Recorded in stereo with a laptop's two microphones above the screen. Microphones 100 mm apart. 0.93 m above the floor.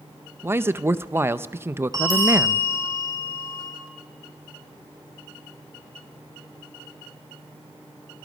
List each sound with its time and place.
0.4 s a man speaking: 20° right (ahead or behind), 0.5 m
1.9 s a bell: 35° right (ahead or behind), 6 m